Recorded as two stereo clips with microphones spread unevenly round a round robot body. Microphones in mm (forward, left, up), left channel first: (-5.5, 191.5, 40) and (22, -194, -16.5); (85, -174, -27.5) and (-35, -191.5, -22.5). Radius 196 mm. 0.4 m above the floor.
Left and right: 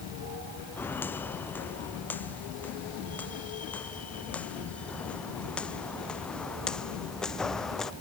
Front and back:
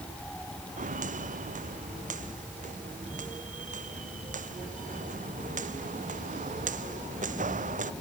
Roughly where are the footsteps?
Behind.